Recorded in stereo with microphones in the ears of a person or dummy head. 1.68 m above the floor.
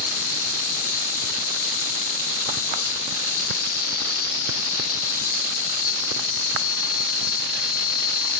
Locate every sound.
0.0 s an insect: 75° left (ahead or behind)